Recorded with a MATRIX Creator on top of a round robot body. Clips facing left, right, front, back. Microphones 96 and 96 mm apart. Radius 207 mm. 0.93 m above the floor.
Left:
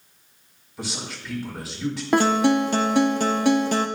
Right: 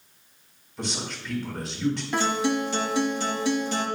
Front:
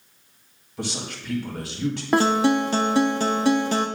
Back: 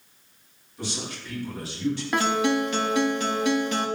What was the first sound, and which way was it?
A man speaking, 5° left.